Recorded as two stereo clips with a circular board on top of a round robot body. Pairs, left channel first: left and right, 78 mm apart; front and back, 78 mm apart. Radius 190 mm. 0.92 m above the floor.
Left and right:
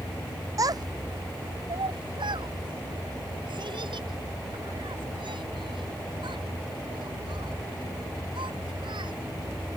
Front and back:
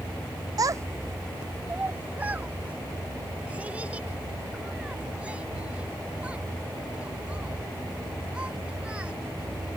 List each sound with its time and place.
0.6 s a child speaking: 135° right; by 9.2 s 105° right